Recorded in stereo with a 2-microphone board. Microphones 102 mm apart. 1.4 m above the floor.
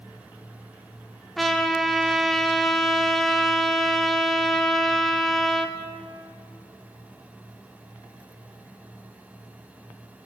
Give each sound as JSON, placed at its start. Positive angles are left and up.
{"t": 1.4, "sound": "a trumpet", "side_deg": 0, "distance_m": 1.3}